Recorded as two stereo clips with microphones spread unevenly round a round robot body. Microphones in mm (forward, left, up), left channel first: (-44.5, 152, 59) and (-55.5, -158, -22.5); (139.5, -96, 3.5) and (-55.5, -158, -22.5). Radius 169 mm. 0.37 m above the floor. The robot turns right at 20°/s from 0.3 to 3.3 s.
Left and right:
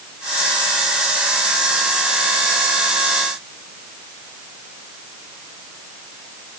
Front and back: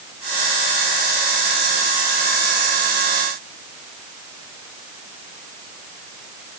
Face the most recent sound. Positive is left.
No sound to turn to.